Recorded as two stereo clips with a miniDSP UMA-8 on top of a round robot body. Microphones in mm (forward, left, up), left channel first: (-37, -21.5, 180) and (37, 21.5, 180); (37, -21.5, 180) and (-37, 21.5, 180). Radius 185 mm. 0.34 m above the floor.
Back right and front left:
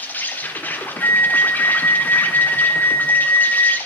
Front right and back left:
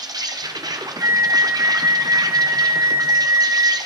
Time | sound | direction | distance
0.0 | an insect | 145° left | 1.6 m
1.0 | a flute | 165° left | 1.0 m